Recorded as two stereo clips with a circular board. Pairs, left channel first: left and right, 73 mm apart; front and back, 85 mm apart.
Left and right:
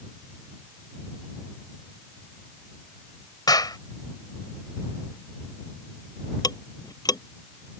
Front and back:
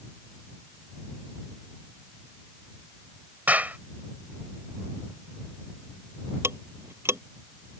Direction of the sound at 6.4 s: 120° left.